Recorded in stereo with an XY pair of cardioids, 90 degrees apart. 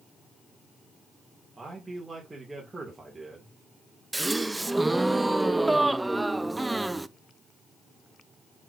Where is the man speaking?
20° right, 2.5 m.